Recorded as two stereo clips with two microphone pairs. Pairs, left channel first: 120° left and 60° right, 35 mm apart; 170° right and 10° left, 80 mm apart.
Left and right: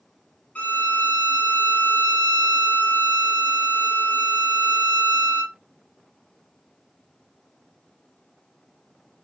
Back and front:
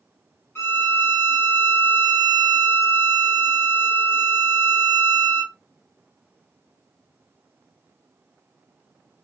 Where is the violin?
140° left, 1.1 m.